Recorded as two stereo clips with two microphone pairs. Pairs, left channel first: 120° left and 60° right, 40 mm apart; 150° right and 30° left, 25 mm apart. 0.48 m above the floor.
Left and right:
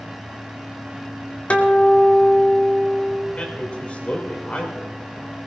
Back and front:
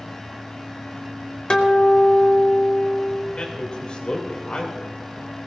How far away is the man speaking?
About 3 m.